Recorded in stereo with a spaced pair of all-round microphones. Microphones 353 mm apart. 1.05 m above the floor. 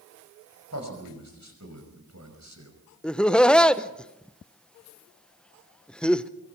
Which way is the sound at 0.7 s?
50° right (ahead or behind).